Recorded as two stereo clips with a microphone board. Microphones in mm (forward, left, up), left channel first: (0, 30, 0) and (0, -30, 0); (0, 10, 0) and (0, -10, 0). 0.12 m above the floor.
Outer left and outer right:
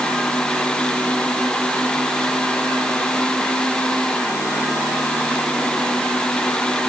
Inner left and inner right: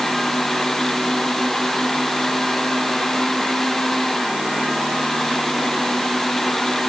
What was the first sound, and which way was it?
Only background noise.